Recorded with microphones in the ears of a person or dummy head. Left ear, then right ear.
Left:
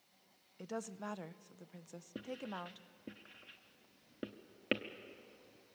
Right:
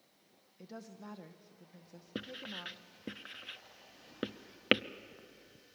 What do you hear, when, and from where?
0.6 s a woman speaking: 45° left (ahead or behind), 0.6 m
2.1 s writing: 40° right (ahead or behind), 0.5 m